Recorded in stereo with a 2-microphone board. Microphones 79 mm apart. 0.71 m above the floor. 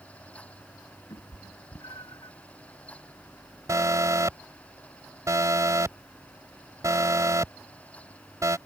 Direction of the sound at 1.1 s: 70° left (ahead or behind).